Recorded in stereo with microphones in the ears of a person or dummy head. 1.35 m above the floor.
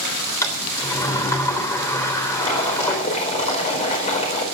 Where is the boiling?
35° left (ahead or behind), 4.5 m.